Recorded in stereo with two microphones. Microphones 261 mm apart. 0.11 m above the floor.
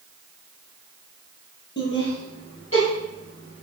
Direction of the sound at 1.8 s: 40° left (ahead or behind).